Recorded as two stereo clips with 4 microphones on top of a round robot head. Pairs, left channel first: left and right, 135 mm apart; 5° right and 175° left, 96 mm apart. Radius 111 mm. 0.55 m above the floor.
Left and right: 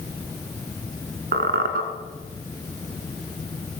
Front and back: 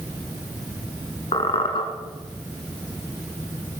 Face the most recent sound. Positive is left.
turn(degrees=-60)